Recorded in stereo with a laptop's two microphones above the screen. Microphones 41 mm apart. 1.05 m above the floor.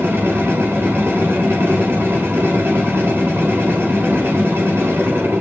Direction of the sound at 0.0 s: 75° right (ahead or behind).